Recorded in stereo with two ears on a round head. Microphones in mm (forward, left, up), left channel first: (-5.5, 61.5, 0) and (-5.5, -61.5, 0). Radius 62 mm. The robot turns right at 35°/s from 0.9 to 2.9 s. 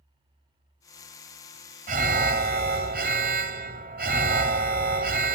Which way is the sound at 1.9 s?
110° right.